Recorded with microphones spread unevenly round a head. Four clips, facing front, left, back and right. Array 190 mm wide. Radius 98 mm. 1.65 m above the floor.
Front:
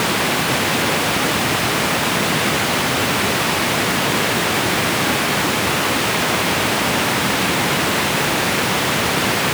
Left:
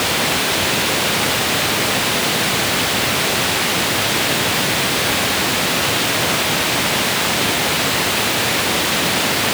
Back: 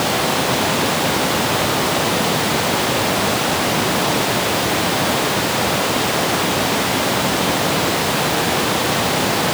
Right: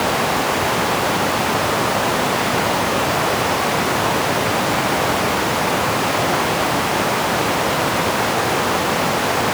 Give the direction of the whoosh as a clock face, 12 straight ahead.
I don't hear a whoosh.